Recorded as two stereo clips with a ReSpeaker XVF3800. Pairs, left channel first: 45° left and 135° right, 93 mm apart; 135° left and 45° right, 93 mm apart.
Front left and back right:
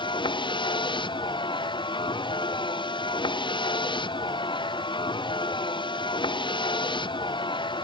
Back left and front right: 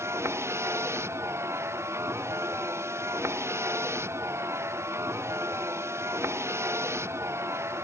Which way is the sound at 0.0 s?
15° left.